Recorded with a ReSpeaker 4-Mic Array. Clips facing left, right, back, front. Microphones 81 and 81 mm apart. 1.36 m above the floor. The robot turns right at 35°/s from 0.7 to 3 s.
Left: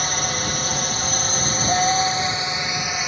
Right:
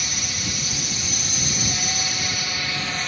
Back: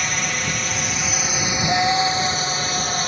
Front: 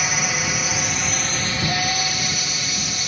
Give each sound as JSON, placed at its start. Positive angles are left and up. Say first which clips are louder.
{"t": 0.0, "sound": "a drone", "louder": "left 7 dB, front 1 dB", "azimuth_deg": 85}
{"t": 1.7, "sound": "a scream", "louder": "left 11 dB, back 9 dB", "azimuth_deg": 115}